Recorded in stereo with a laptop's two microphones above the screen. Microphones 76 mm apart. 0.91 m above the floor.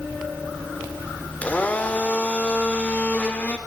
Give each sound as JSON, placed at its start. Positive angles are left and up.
{"t": 1.4, "sound": "a blender", "side_deg": 20, "distance_m": 0.9}